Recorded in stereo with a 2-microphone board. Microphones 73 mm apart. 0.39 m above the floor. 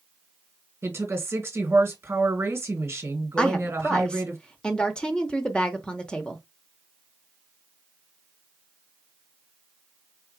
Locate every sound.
0.8 s a woman speaking: 35° right (ahead or behind), 2 m
3.4 s a woman speaking: 10° left (ahead or behind), 0.9 m